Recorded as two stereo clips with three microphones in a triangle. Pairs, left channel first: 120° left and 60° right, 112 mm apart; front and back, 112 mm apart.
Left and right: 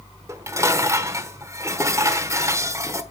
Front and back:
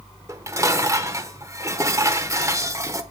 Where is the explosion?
No explosion in this recording.